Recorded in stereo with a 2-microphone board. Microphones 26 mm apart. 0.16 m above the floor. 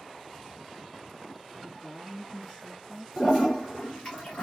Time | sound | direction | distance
1.6 | a woman speaking | 35° left (ahead or behind) | 2 m
3.2 | a toilet flushing | 25° left (ahead or behind) | 2 m